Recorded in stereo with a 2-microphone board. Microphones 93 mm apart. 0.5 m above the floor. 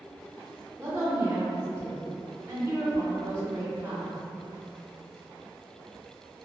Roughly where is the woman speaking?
Right.